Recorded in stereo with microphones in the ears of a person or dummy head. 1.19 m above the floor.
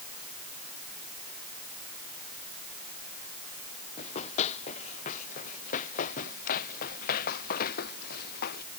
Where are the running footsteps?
35° left (ahead or behind); by 8.6 s 55° left (ahead or behind).